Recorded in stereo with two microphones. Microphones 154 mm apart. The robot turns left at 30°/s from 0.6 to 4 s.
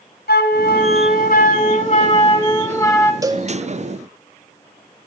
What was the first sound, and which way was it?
A flute, 90° left.